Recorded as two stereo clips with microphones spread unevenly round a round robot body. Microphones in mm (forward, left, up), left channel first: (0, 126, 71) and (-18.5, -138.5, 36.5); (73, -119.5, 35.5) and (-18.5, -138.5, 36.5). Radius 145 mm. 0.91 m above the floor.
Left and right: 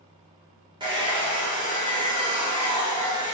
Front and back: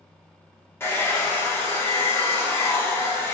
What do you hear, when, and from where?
0.8 s a hair dryer: 40° right, 1.1 m